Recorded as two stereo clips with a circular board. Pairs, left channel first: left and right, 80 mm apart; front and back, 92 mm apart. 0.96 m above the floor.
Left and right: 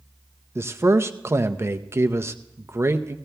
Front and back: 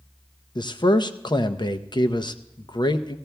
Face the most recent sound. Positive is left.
turn(degrees=-35)